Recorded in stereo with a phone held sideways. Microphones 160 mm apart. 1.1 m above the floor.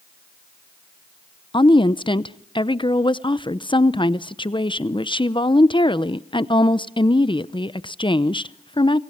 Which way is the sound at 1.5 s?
30° left (ahead or behind).